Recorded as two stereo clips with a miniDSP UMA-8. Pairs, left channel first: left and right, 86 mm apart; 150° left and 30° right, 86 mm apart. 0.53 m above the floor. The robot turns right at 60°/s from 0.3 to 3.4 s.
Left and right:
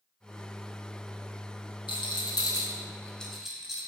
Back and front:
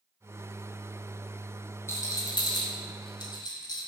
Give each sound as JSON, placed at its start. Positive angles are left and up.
{"t": 1.9, "sound": "a rattle", "azimuth_deg": 90, "distance_m": 1.6}